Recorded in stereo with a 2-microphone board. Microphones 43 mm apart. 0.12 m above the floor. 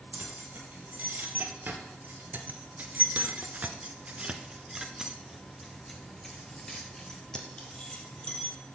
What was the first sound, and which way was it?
Keys jangling, 45° right (ahead or behind).